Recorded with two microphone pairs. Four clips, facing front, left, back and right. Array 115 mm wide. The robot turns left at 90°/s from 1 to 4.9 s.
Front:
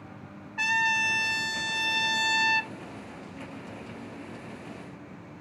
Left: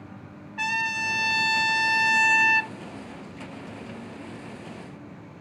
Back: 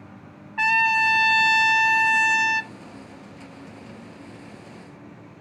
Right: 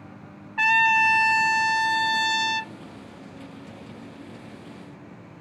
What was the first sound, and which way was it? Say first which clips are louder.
A trumpet: right 9 dB, back 7 dB; 130° right.